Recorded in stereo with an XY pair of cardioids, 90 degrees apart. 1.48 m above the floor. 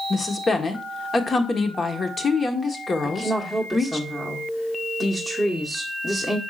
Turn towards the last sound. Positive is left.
turn(degrees=5)